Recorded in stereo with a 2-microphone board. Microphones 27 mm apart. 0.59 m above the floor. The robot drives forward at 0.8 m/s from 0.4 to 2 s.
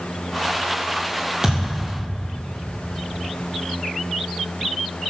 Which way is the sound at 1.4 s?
25° right (ahead or behind).